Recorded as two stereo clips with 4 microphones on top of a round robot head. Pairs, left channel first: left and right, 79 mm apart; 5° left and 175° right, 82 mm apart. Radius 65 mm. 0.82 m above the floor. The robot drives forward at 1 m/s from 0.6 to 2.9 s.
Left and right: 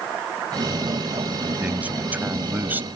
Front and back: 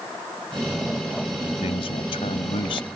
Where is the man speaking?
20° right; by 2.9 s 25° right.